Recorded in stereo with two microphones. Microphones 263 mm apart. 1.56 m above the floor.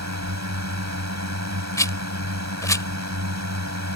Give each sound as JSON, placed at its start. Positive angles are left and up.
{"t": 0.0, "sound": "a drone", "side_deg": -85}
{"t": 1.8, "sound": "a rattle", "side_deg": 10}